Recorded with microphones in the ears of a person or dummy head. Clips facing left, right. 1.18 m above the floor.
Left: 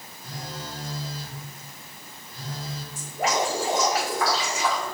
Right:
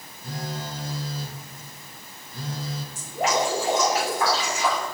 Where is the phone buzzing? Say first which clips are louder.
Right 4 dB; 50° right (ahead or behind), 1.2 m.